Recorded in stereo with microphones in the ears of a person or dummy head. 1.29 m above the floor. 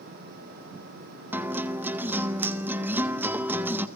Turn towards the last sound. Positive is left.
turn(degrees=-10)  # may be behind; listen again after turning